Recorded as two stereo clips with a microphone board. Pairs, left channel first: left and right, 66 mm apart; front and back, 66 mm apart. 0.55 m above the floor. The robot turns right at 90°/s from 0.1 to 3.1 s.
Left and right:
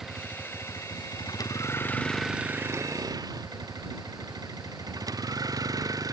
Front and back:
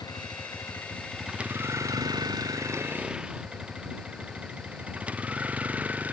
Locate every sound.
0.0 s a vehicle: 5° right; by 6.1 s 115° right